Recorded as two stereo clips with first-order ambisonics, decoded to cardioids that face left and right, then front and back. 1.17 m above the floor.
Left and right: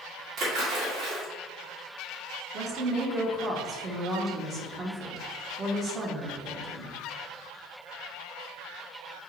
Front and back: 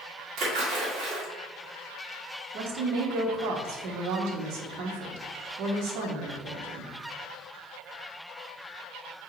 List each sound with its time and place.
0.4 s a splash: 135° right, 1.8 m
2.5 s a woman speaking: 155° right, 1.0 m